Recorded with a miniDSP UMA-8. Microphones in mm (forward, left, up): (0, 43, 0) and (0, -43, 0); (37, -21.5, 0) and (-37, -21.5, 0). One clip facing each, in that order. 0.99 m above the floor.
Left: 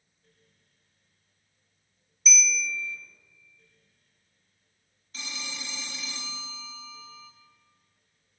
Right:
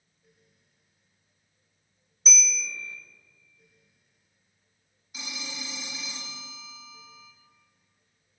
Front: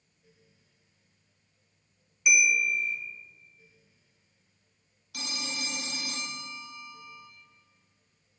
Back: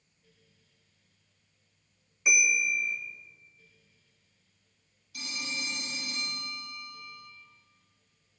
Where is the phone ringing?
10° right, 1.1 m.